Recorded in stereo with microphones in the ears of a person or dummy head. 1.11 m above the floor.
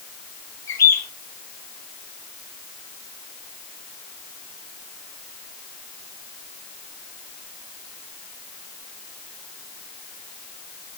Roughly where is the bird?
Centre.